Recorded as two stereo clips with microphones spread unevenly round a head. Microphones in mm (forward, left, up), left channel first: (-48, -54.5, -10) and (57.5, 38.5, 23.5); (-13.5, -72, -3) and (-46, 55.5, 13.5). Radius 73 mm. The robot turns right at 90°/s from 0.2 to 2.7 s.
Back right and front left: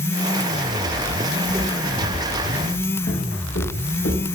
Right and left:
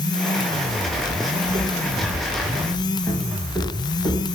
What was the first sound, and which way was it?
Footsteps, 75° left.